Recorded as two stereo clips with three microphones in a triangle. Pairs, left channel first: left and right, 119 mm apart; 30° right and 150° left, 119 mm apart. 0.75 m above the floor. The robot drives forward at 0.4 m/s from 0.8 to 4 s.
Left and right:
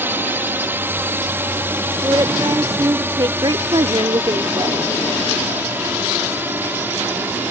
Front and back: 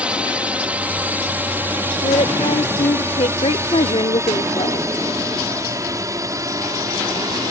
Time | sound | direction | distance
0.0 | a drone | 140° right | ?
2.0 | a woman speaking | 35° right | ?